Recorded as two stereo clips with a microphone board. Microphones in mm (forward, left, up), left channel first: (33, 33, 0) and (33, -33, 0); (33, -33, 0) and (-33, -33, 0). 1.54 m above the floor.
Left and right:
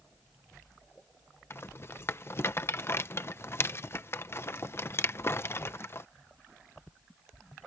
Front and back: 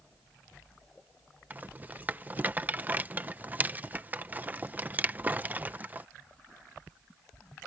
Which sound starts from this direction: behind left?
A rattle, at 1.5 s.